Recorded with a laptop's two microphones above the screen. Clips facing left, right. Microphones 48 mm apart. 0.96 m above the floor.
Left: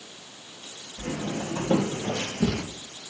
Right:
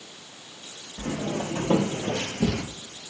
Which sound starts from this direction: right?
Footsteps, at 1.0 s.